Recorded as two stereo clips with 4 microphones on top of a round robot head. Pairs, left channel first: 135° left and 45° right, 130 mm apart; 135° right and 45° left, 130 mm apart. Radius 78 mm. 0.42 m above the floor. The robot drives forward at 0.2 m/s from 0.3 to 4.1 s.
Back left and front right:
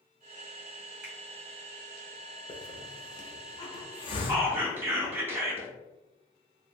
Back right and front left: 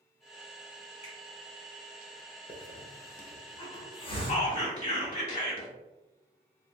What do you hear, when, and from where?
1.0 s a finger snap: 125° right, 1.8 m; by 1.1 s 130° right, 1.8 m
2.5 s a hiss: straight behind, 0.7 m
4.3 s whispering: 115° right, 1.4 m